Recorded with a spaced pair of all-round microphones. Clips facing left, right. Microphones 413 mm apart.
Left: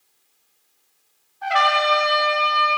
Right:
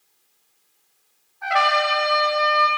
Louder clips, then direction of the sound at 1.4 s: Left 1 dB; 50° left (ahead or behind).